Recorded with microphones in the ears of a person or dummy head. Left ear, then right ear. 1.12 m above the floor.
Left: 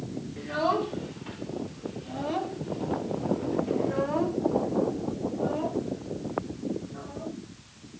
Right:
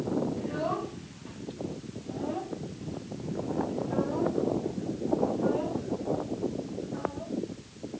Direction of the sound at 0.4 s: 50° left (ahead or behind).